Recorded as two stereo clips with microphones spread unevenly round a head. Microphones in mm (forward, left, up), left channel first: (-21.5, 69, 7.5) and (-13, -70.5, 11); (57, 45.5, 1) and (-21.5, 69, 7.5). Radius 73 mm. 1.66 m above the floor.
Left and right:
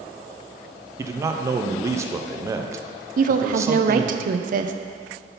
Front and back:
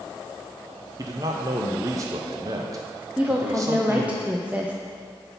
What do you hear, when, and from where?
1.0 s a man speaking: 150° right, 0.5 m
3.2 s a woman speaking: 115° right, 0.5 m